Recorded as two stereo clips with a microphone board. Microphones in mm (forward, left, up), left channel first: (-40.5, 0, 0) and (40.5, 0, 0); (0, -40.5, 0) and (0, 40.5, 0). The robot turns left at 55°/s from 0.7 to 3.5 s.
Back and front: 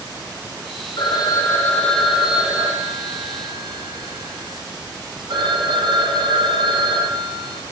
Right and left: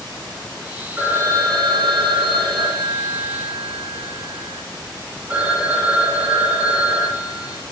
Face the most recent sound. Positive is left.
turn(degrees=20)